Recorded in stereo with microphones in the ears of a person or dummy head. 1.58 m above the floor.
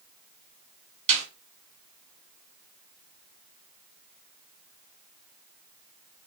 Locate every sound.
1.1 s a snare drum: 40° right (ahead or behind), 2.5 m